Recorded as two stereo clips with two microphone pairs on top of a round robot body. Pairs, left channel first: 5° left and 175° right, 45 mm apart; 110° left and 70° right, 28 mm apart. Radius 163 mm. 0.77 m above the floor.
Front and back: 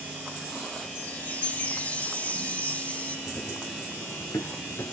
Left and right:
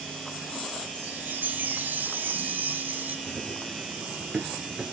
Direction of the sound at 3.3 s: 40° right.